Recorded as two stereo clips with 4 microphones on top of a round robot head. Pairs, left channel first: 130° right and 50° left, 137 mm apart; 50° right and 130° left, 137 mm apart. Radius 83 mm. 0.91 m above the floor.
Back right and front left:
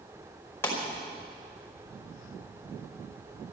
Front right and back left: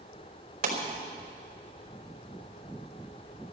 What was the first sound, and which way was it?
A pop, 155° left.